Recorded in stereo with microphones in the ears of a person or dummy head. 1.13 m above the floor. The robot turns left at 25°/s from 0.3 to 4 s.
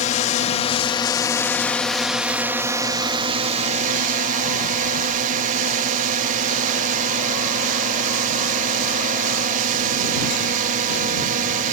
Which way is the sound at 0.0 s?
45° left.